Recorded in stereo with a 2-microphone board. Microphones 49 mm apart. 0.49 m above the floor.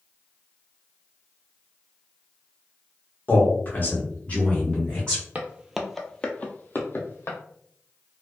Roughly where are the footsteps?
Right.